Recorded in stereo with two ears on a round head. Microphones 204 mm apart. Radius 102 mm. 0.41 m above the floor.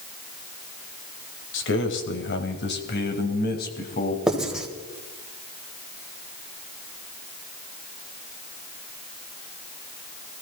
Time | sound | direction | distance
1.5 | a man speaking | 55° left (ahead or behind) | 2.5 m
4.3 | writing | 5° right (ahead or behind) | 2.5 m